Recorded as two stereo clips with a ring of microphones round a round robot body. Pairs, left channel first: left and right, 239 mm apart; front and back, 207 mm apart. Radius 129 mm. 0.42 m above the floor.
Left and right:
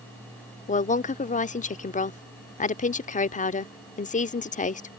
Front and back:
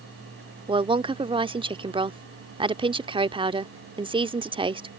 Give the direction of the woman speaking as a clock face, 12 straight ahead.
8 o'clock.